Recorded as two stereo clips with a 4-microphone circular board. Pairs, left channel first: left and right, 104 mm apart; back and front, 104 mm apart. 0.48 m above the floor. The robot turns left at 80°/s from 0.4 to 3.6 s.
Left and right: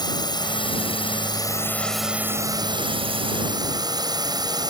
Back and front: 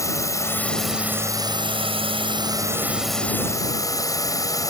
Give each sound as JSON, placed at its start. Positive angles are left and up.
{"t": 0.0, "sound": "a drone", "azimuth_deg": 125}